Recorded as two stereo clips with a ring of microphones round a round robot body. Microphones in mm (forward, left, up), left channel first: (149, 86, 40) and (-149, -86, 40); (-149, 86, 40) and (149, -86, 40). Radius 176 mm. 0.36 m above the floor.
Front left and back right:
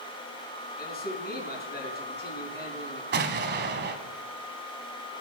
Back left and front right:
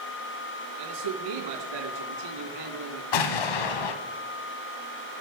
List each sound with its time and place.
0.8 s a man speaking: 35° right, 4 m
3.1 s an explosion: 150° left, 1.2 m